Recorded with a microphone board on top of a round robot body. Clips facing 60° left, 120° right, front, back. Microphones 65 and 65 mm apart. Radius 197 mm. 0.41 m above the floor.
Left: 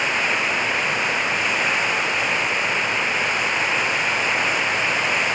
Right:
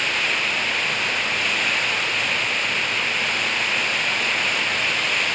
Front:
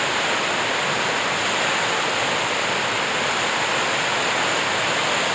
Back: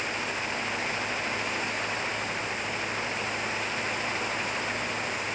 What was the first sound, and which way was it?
Running water, 10° right.